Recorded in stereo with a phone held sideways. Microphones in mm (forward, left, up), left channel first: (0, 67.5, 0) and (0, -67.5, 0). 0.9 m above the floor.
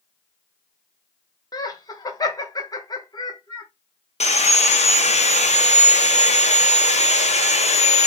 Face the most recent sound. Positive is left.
turn(degrees=55)  # may be behind; listen again after turning